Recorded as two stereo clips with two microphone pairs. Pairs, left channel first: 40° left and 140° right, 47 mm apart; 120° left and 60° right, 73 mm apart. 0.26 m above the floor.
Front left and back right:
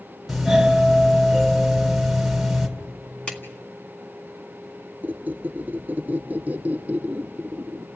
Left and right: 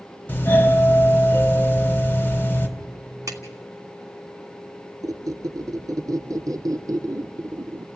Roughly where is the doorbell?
Behind left.